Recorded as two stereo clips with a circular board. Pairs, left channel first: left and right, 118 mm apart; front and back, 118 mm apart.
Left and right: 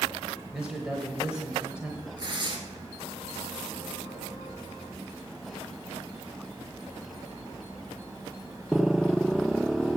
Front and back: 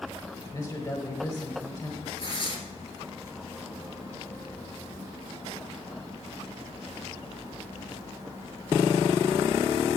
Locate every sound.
0.5 s a man speaking: 15° right, 1.2 m
2.2 s tearing paper: 40° right, 1.8 m